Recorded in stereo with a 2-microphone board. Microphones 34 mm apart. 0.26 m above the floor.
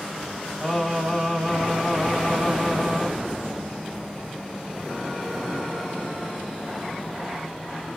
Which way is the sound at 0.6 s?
5° right (ahead or behind).